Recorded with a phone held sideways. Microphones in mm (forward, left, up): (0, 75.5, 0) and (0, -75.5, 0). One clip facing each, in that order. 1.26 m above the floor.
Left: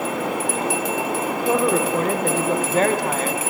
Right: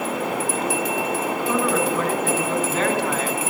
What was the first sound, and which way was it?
A woman speaking, 40° left (ahead or behind).